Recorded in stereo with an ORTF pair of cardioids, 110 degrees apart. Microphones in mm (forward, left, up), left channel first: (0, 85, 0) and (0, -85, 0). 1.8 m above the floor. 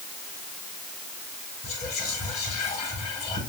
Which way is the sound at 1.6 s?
40° left.